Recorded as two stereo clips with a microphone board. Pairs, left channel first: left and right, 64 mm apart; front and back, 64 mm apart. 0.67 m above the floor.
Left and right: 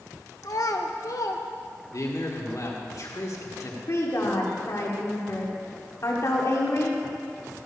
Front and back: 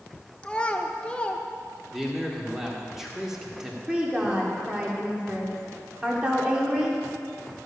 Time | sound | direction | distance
0.4 | a child speaking | 70° left | 0.9 m
1.9 | a man speaking | 100° left | 1.7 m
3.9 | a woman speaking | 110° left | 2.0 m